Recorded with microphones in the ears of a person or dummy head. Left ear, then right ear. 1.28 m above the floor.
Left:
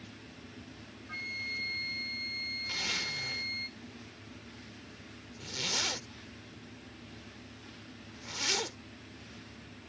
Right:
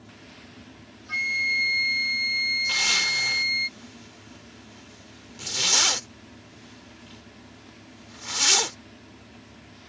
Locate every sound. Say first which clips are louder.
0.0 s a fan: right 3 dB; 45° right (ahead or behind)
1.1 s a flute: right 13 dB; 45° right (ahead or behind)
2.7 s a zipper: right 10 dB; 45° right (ahead or behind)